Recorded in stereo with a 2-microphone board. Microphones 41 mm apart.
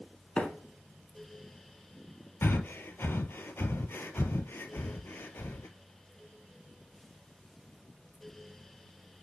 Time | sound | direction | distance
0.4 | a microwave | 30° left (ahead or behind) | 0.9 m
2.4 | breathing | 65° left (ahead or behind) | 0.5 m